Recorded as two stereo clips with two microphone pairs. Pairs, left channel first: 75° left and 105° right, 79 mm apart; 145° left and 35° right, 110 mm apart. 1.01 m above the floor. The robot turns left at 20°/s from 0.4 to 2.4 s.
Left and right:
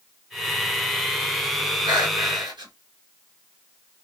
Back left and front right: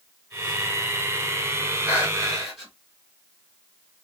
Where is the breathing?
110° right, 1.6 m; by 2.7 s 120° right, 1.6 m.